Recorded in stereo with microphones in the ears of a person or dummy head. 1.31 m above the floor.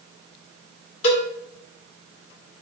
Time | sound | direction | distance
1.0 | a cowbell | 30° left (ahead or behind) | 1.8 m